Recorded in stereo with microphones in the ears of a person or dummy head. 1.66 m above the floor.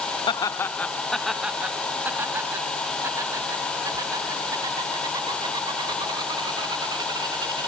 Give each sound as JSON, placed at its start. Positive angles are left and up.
{"t": 0.3, "sound": "laughter", "side_deg": 25}